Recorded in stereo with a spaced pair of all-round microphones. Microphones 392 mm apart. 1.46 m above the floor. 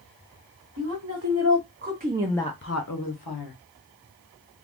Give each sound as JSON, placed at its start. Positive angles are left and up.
{"t": 0.8, "sound": "a woman speaking", "side_deg": -50, "distance_m": 1.6}